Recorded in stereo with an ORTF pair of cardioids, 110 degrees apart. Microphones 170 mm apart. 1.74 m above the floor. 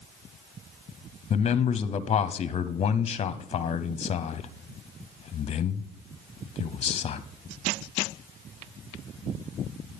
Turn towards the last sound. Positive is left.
turn(degrees=35)